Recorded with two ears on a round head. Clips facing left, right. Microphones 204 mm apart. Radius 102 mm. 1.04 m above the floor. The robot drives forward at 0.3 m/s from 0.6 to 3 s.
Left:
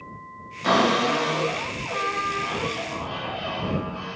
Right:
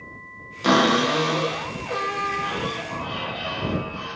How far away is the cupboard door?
About 0.5 m.